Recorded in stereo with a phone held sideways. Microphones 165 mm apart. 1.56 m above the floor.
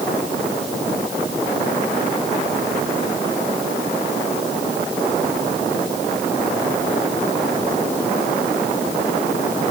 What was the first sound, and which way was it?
Only background noise.